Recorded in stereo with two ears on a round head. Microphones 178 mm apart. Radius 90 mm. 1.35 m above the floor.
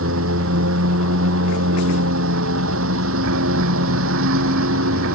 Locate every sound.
0.0 s a lawn mower: 80° right